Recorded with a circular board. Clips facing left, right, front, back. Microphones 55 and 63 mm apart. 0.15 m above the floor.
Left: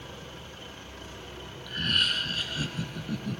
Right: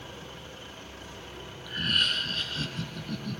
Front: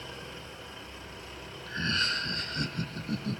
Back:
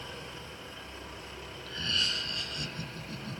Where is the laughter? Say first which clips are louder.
Even, front 4 dB; 10° right, 1.5 m; by 3.4 s 20° left, 2.5 m.